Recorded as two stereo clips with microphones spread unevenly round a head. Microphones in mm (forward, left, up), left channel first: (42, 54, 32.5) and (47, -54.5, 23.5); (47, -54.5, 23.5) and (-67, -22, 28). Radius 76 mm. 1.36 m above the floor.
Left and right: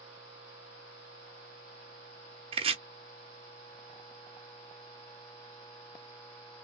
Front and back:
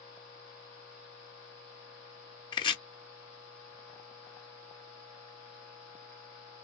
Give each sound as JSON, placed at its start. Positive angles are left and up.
{"t": 2.5, "sound": "chopping", "azimuth_deg": -60, "distance_m": 1.1}